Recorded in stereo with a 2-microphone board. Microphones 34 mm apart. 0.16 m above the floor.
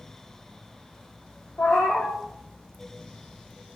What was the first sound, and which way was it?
A cat meowing, 85° left.